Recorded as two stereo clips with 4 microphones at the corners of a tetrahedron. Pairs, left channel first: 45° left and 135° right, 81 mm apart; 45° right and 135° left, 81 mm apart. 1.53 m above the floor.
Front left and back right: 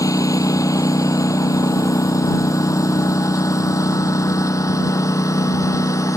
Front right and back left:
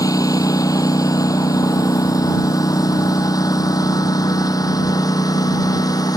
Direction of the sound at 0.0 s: Straight ahead.